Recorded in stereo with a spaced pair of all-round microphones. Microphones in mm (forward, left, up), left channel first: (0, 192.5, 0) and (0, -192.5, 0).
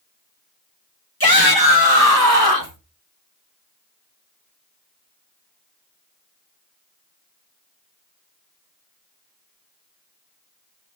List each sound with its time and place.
1.2 s a shout: 70° left (ahead or behind), 2.5 m; by 2.8 s 75° left (ahead or behind), 2.5 m